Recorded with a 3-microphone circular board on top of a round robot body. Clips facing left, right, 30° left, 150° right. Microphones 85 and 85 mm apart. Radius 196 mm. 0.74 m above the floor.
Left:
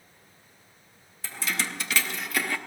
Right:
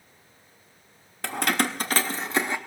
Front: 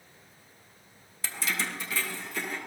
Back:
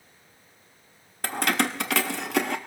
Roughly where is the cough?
No cough in this recording.